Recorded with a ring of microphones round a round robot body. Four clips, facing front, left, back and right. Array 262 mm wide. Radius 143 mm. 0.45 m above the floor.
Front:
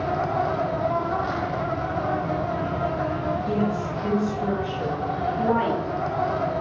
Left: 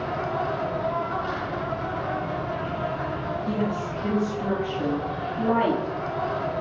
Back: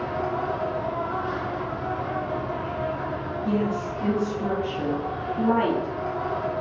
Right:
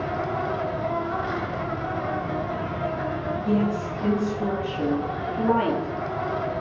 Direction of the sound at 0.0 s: 20° right.